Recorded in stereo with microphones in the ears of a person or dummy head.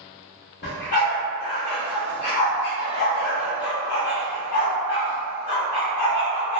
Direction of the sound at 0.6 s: 55° left (ahead or behind).